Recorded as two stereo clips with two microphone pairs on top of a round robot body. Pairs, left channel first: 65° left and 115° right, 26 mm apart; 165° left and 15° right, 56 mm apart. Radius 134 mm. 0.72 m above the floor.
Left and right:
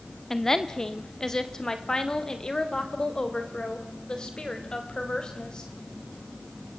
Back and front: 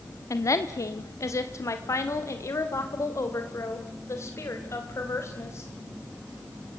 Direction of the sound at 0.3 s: 140° left.